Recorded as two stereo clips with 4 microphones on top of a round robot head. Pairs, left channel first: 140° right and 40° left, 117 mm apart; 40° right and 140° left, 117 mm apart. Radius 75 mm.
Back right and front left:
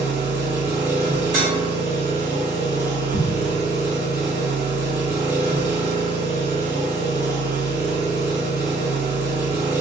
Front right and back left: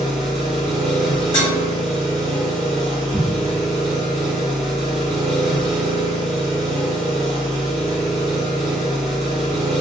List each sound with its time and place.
0.0 s an engine running: 50° left, 1.5 m
1.3 s dishes clattering: 15° left, 1.4 m
3.1 s an explosion: 135° right, 0.5 m